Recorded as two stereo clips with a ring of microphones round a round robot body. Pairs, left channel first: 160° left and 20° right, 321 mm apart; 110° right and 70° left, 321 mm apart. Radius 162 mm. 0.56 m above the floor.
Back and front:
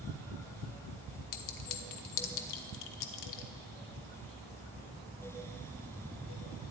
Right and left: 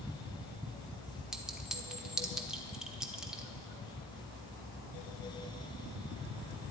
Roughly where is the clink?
Behind left.